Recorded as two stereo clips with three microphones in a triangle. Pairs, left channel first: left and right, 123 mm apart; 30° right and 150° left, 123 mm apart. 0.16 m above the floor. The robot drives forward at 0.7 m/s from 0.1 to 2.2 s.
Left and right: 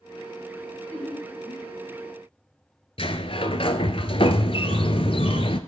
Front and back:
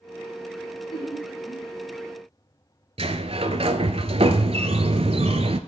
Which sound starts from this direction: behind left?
A sliding door, at 3.0 s.